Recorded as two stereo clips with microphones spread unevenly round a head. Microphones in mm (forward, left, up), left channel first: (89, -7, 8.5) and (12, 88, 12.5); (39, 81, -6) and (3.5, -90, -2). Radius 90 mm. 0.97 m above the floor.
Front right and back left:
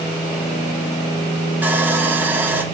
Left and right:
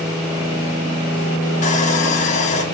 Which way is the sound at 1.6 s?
55° left.